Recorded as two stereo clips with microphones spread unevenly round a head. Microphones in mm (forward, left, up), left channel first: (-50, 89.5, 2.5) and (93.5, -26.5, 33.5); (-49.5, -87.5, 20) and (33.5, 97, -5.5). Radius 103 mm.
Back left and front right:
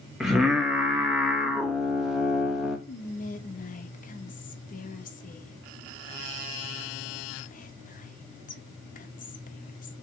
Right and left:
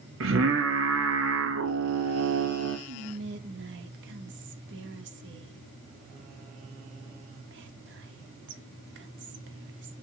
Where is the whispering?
95° left, 1.6 m.